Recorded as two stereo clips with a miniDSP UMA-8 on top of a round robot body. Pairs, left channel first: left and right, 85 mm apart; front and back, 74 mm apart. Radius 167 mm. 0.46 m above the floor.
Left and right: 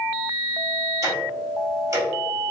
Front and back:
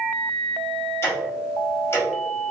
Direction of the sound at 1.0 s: 45° right.